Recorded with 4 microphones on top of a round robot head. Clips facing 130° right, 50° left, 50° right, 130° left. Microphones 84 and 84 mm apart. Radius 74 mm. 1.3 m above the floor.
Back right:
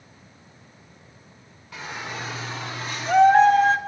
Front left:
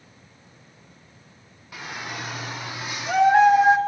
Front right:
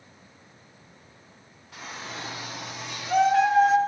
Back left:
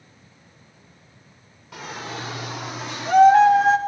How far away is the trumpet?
No trumpet in this recording.